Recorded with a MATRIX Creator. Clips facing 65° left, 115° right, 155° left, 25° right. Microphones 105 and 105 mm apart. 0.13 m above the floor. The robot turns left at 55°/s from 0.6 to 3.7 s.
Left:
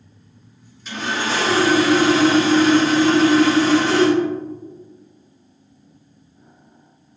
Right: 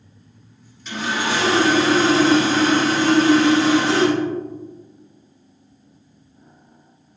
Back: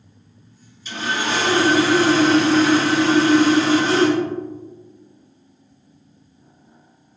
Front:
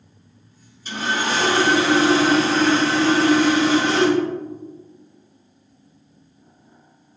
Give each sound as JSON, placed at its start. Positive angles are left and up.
{"t": 0.8, "sound": "sawing", "azimuth_deg": -20, "distance_m": 2.0}